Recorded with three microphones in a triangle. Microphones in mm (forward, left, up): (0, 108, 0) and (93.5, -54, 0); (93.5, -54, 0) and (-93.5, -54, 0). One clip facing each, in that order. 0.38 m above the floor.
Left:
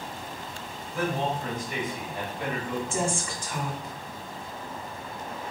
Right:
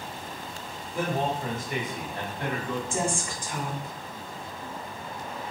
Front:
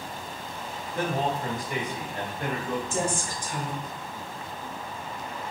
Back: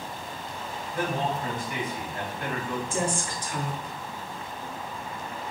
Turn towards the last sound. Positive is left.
turn(degrees=0)